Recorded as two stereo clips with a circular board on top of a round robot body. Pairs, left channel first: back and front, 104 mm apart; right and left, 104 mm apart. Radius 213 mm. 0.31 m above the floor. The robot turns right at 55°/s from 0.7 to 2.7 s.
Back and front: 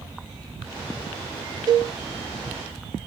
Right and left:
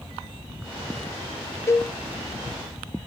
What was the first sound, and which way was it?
A cowbell, 35° right.